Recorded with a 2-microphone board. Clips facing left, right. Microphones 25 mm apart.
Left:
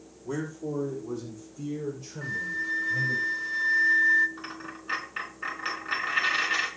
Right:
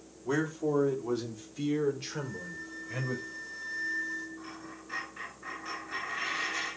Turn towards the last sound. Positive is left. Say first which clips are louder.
# left 5 dB
turn(degrees=70)  # may be behind; listen again after turning